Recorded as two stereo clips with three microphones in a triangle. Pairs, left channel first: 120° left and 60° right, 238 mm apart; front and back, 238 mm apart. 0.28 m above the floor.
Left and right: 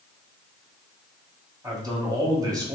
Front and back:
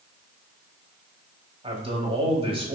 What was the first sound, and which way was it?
A man speaking, 125° right.